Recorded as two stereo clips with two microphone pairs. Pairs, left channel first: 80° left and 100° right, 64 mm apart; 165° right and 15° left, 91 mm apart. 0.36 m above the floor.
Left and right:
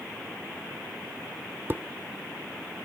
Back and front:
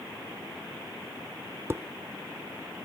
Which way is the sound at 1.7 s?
45° right.